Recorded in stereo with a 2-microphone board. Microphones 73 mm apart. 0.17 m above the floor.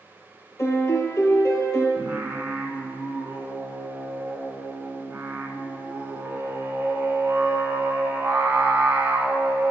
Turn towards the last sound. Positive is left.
turn(degrees=-25)  # may be behind; listen again after turning